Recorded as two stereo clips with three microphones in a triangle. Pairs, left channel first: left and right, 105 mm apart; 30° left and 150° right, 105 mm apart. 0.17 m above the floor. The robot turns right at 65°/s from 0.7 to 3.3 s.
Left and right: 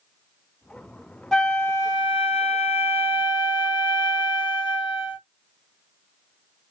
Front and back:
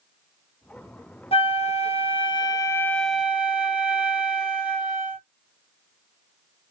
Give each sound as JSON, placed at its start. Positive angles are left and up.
{"t": 1.3, "sound": "a flute", "azimuth_deg": 5, "distance_m": 0.7}